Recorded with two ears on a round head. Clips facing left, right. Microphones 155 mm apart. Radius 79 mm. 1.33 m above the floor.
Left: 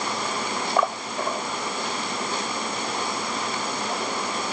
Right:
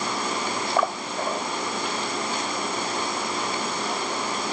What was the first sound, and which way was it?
Only background noise.